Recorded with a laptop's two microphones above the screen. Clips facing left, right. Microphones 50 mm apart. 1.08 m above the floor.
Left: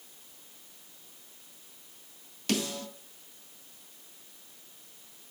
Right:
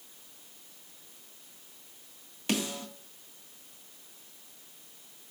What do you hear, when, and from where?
2.5 s a snare drum: 20° right (ahead or behind), 2.5 m